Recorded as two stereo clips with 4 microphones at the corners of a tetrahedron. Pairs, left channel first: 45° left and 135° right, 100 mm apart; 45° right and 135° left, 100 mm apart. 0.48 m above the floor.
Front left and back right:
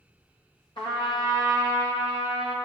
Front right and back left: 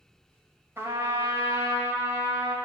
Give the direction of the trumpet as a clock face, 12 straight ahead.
10 o'clock.